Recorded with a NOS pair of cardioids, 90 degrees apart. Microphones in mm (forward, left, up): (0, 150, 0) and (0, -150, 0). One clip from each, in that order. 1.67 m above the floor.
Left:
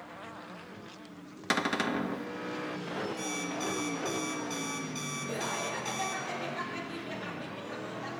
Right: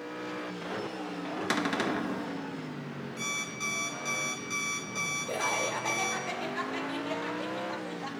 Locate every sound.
1.5 s a cupboard door: 5° left, 0.7 m
3.2 s an alarm clock: 5° right, 2.5 m
5.3 s laughter: 40° right, 2.5 m